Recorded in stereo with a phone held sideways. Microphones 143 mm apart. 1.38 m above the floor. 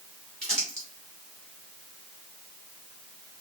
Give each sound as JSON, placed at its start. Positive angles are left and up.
{"t": 0.4, "sound": "crumpling", "side_deg": 5, "distance_m": 2.5}